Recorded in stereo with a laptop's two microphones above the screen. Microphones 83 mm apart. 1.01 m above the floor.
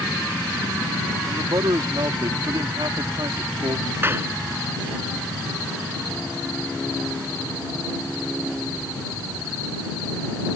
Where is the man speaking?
70° right (ahead or behind).